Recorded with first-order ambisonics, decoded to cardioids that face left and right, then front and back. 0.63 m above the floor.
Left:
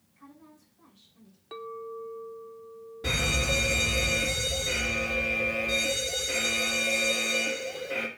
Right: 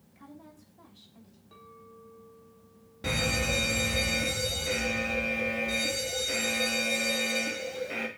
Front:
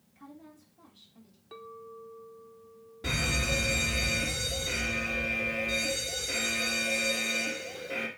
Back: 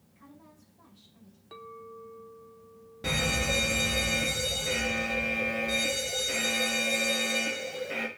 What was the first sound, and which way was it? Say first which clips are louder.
A woman speaking: right 2 dB, front 4 dB; 75° right.